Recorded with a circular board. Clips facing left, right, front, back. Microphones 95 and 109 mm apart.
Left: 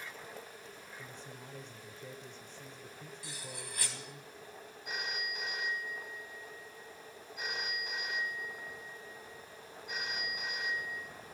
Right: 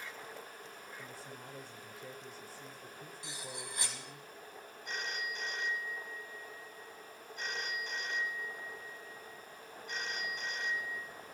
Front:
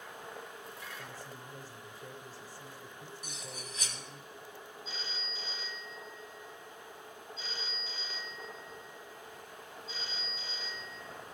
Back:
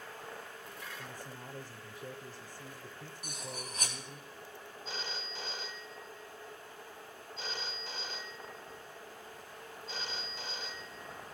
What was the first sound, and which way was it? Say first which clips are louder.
A man speaking: even, even; 155° right.